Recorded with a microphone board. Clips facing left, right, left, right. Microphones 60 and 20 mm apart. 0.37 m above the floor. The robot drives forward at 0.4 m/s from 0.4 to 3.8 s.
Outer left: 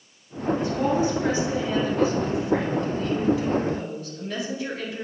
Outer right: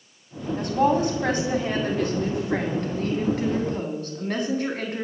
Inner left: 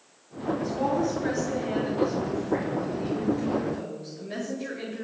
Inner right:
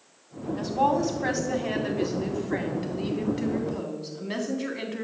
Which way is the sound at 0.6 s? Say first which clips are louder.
Outer right 4 dB, inner right 4 dB; 65° right (ahead or behind).